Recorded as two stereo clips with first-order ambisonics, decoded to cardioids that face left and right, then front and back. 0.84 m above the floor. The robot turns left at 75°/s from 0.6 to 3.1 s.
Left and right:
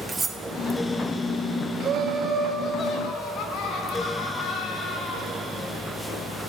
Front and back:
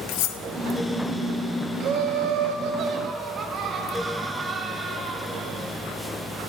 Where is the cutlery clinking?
10° right, 0.6 m.